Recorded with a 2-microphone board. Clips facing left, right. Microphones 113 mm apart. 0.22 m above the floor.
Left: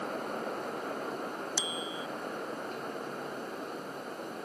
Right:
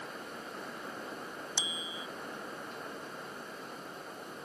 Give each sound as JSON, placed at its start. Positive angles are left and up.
{"t": 1.6, "sound": "a bicycle bell", "side_deg": -20}